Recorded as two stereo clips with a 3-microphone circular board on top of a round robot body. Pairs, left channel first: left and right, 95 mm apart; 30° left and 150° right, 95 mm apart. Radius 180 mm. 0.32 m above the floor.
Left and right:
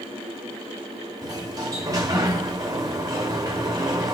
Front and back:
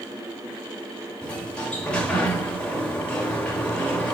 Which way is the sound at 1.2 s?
50° right.